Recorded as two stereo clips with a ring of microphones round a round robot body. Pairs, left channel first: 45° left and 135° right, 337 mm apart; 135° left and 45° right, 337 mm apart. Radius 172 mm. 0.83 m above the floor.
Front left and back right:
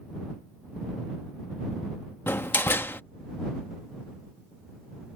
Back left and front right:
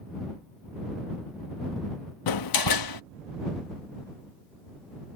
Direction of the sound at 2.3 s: 130° left.